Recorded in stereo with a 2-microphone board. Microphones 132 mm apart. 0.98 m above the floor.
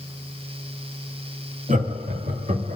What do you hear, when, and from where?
1.7 s laughter: 80° right, 1.8 m